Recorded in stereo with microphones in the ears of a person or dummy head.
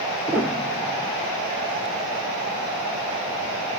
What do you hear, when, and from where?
0.3 s a piano: centre (ahead or behind), 0.5 m